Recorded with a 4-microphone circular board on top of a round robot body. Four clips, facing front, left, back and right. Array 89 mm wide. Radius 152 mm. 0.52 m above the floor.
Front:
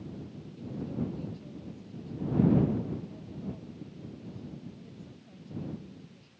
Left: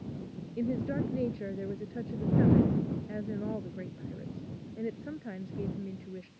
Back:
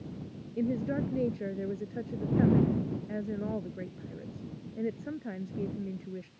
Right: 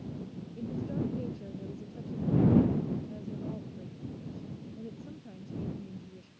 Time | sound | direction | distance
0.6 | a woman speaking | 150° left | ?